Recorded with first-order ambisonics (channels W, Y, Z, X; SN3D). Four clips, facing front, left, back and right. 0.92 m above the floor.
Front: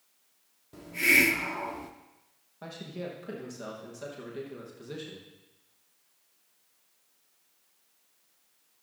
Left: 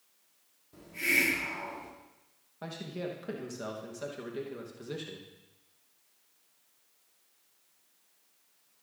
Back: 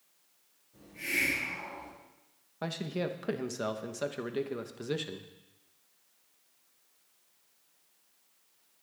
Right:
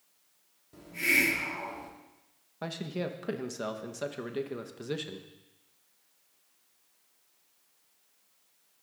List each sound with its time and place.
0.7 s a hiss: 10° right, 1.2 m
2.6 s a man speaking: 145° right, 0.9 m